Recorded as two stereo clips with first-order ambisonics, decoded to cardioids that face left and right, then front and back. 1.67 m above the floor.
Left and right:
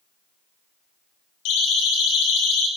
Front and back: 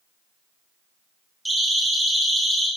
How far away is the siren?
About 5 m.